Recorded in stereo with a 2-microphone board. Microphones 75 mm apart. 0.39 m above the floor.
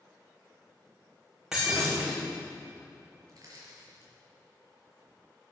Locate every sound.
1.5 s breaking glass: 5° right (ahead or behind), 6.5 m
3.3 s crushing: 50° right (ahead or behind), 6 m